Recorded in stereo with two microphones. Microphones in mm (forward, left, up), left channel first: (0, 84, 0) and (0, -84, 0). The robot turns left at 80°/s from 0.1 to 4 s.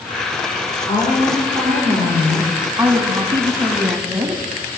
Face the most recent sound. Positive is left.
turn(degrees=-15)  # may be behind; listen again after turning